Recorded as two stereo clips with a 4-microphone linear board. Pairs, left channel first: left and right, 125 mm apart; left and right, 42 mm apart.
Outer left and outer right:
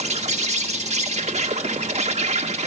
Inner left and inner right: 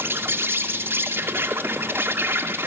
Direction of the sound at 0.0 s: 65° right (ahead or behind).